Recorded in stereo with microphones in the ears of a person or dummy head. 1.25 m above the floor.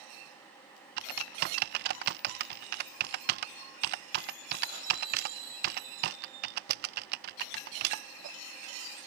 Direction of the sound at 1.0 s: 60° right (ahead or behind).